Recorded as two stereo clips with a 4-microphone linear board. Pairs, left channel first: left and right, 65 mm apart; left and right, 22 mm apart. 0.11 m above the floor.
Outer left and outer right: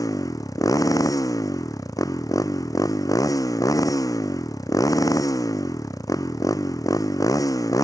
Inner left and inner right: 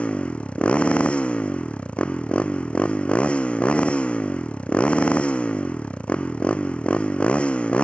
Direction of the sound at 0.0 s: 70° left (ahead or behind).